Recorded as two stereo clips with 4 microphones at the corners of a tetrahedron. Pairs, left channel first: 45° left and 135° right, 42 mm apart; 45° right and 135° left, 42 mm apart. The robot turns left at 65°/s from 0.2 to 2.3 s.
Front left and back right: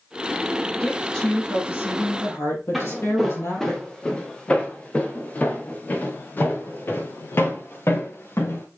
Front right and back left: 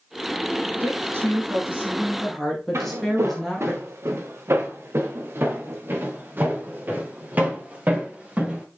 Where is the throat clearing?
I don't hear throat clearing.